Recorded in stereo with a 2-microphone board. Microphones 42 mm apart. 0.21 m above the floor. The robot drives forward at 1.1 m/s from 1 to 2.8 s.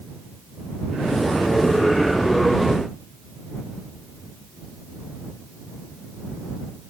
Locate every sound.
Only background noise.